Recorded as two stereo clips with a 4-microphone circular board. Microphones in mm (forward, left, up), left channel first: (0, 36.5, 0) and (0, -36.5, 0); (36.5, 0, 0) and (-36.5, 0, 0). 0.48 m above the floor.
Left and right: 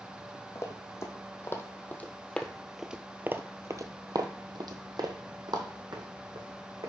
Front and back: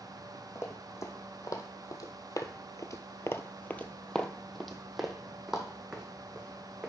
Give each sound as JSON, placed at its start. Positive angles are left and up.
{"t": 0.6, "sound": "running footsteps", "azimuth_deg": 45, "distance_m": 1.5}